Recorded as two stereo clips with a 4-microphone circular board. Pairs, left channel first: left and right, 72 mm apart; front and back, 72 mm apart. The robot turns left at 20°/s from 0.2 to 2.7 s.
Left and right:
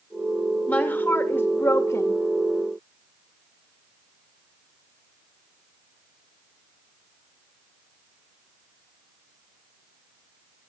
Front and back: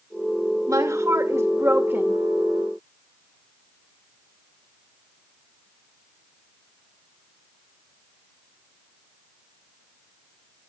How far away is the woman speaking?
About 2 m.